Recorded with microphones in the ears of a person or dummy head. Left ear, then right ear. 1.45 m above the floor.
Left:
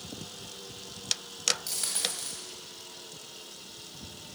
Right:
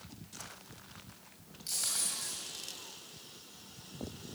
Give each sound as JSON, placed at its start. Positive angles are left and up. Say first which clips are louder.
{"t": 1.7, "sound": "a dropped coin", "louder": "left 4 dB", "side_deg": 15, "distance_m": 2.0}